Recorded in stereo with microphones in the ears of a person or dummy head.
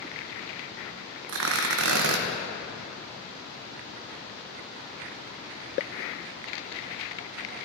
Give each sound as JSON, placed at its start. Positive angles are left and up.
{"t": 1.3, "sound": "tearing paper", "side_deg": -70, "distance_m": 1.1}